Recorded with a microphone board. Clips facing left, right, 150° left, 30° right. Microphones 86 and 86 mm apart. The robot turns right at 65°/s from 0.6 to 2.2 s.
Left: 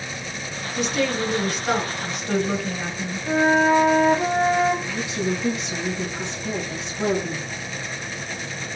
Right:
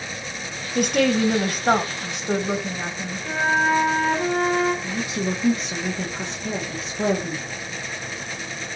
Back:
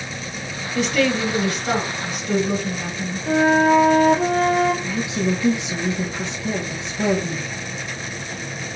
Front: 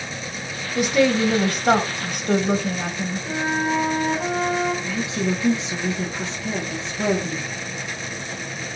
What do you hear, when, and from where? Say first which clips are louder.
0.8 s a woman speaking: right 4 dB, front 2 dB; 115° right, 1.0 m; by 3.3 s 20° right, 1.0 m
3.3 s a flute: left 3 dB, back 9 dB; 160° left, 1.1 m
4.8 s a woman speaking: even, back 2 dB; 135° right, 1.3 m